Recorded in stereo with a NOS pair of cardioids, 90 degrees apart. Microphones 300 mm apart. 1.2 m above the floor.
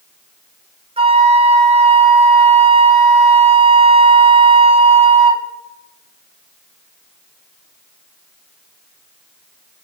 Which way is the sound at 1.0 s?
20° right.